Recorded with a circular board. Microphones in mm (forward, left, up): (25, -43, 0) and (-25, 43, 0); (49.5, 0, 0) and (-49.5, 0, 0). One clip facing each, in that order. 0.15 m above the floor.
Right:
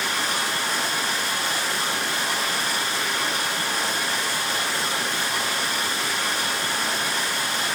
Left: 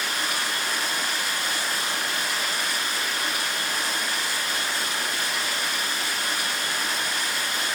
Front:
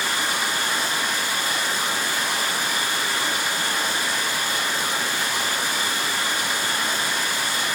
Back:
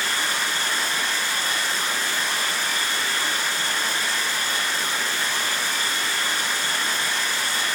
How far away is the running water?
About 8.5 m.